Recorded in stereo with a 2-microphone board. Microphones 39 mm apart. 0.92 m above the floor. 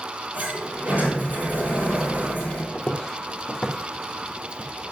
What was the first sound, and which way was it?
A sliding door, 55° right (ahead or behind).